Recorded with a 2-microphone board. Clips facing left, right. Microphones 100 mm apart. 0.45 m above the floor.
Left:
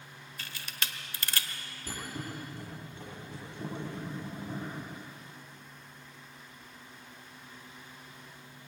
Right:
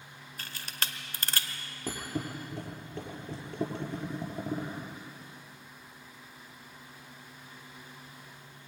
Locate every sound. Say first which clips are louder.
0.4 s a camera shutter: right 2 dB; 40° right (ahead or behind), 1.2 m
1.9 s a thud: right 5 dB; 85° right, 6 m